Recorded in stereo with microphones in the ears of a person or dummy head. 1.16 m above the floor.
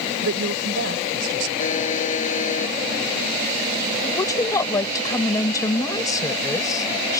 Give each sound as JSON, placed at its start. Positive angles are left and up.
{"t": 0.2, "sound": "a woman speaking", "side_deg": -80}
{"t": 1.6, "sound": "a buzzer", "side_deg": 40}
{"t": 4.0, "sound": "a woman speaking", "side_deg": 20}